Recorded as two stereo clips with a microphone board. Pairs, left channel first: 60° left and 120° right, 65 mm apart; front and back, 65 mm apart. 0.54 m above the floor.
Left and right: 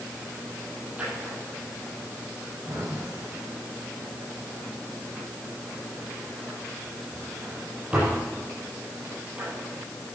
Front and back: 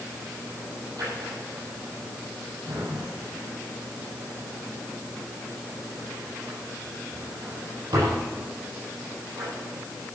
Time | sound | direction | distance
1.0 | a drawer | 170° left | 7.5 m